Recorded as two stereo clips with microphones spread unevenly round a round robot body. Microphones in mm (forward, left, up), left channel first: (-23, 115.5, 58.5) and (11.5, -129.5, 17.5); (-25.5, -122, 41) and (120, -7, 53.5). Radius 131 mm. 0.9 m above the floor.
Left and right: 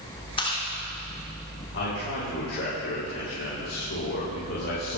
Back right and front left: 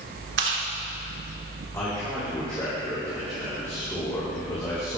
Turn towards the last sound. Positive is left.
turn(degrees=140)